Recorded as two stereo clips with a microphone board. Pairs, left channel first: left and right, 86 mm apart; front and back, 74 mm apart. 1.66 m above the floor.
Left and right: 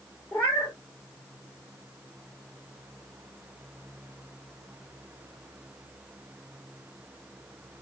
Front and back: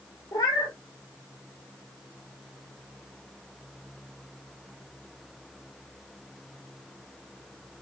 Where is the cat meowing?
25° left, 2 m.